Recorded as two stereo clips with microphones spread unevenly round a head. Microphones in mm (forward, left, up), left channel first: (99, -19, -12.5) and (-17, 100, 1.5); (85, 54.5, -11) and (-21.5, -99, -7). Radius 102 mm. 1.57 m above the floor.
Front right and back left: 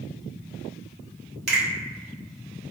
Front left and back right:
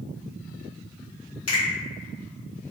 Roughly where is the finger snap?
Behind left.